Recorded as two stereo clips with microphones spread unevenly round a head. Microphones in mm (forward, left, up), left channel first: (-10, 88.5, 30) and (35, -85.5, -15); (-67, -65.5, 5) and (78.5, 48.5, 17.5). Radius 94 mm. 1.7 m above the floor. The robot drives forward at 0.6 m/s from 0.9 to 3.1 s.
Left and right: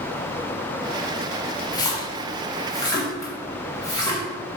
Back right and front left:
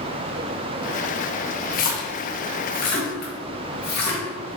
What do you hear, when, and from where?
1.7 s a splash: 170° left, 1.0 m; by 4.2 s 175° left, 1.8 m